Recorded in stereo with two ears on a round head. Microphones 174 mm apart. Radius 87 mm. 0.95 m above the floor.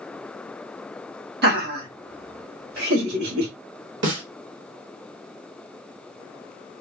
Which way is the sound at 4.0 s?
70° right (ahead or behind).